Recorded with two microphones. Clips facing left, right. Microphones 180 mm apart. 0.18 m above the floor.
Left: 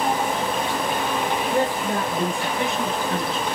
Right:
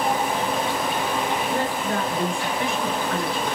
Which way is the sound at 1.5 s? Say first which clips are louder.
Left 2 dB; 20° left (ahead or behind).